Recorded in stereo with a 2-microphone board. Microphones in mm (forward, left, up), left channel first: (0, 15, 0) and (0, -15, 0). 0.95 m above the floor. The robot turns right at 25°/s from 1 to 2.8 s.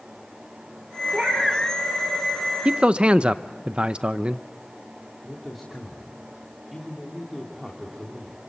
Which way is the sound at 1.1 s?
25° right (ahead or behind).